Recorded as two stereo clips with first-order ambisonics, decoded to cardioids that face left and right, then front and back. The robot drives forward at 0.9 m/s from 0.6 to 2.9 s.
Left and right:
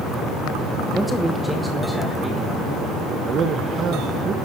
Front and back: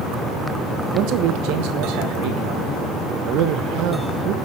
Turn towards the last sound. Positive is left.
turn(degrees=-150)